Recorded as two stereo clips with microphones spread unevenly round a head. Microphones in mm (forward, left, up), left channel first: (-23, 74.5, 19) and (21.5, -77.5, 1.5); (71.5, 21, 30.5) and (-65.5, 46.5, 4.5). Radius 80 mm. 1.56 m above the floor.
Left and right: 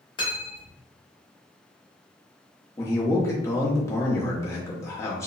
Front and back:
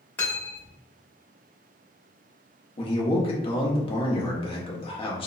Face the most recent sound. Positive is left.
turn(degrees=35)